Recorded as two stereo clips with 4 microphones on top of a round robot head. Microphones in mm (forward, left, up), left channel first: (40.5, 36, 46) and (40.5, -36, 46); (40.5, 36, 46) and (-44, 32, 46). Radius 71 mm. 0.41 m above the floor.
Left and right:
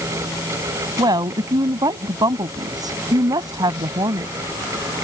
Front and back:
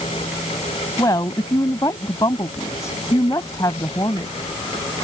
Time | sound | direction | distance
1.0 | a woman speaking | 60° right | ?